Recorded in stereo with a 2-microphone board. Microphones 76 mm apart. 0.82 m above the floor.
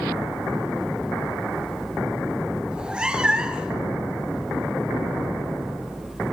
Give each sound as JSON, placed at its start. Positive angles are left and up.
{"t": 2.7, "sound": "a cat meowing", "side_deg": -10, "distance_m": 2.0}